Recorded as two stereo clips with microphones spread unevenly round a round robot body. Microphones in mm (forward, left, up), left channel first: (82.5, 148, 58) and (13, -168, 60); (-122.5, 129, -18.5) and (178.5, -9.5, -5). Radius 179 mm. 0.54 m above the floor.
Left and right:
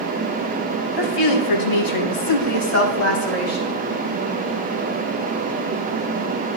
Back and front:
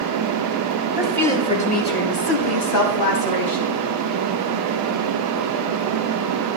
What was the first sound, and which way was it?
A woman speaking, 65° left.